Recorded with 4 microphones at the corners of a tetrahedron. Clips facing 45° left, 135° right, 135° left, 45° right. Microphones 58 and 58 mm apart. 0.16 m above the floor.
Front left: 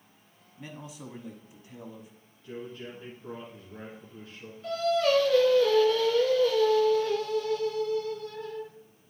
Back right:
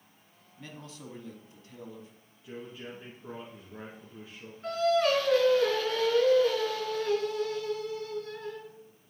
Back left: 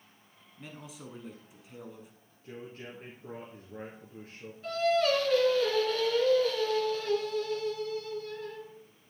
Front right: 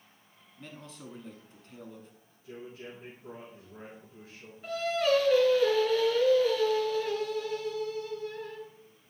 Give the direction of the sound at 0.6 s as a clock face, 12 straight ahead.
9 o'clock.